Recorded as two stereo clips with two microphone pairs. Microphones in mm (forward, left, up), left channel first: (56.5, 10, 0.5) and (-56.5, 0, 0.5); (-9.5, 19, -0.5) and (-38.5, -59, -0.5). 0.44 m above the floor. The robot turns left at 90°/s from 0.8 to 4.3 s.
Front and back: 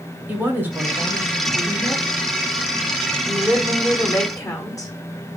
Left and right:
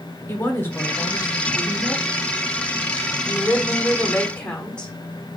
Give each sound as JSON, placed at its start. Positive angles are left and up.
{"t": 0.3, "sound": "a woman speaking", "azimuth_deg": 120, "distance_m": 0.9}
{"t": 3.3, "sound": "a woman speaking", "azimuth_deg": 95, "distance_m": 1.1}